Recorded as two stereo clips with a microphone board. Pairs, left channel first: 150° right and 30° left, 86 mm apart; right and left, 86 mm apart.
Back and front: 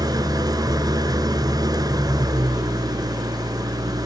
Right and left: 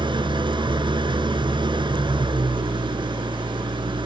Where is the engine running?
70° left, 0.8 m.